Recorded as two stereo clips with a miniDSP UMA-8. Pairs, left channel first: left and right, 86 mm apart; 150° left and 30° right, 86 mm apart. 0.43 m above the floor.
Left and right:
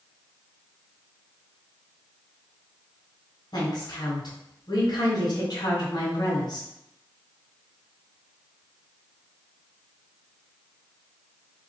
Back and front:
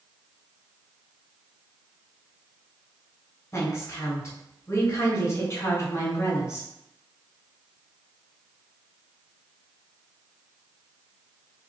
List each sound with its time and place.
3.5 s a woman speaking: 100° left, 1.8 m